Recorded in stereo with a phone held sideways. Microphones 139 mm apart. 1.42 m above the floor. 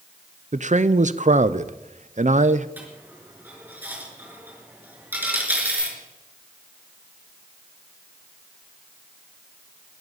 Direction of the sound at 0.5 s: 60° right (ahead or behind).